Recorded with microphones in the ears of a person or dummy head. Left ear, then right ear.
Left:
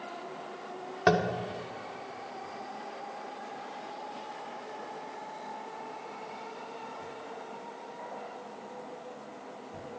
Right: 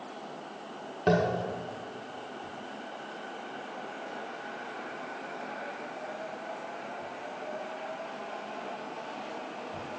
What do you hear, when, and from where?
1.1 s tapping: 65° left (ahead or behind), 1.2 m